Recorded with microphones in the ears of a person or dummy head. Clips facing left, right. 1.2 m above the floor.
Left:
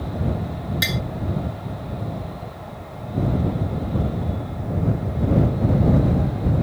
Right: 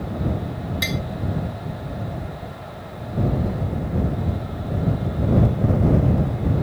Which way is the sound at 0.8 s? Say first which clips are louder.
Right 2 dB; 10° left (ahead or behind).